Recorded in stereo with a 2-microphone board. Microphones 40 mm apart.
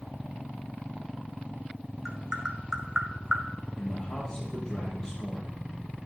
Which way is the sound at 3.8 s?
15° left (ahead or behind).